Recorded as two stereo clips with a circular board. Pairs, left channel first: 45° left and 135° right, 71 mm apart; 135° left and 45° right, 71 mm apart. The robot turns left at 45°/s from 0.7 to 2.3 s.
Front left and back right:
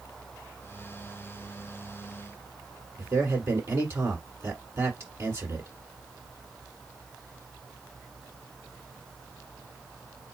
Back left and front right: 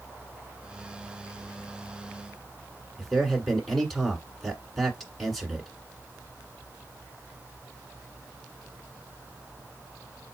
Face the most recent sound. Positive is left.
turn(degrees=-135)